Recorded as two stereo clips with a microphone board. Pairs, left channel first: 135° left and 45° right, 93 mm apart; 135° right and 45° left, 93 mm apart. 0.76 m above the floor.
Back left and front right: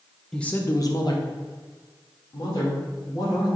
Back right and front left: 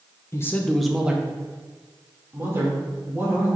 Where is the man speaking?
145° right, 0.5 m; by 3.5 s 105° left, 2.5 m.